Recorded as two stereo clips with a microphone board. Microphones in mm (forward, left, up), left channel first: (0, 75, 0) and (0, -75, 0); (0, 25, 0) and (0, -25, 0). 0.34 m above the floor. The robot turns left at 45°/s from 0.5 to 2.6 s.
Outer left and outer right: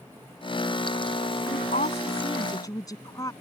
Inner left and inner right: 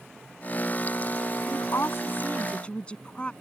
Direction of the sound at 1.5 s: 75° left.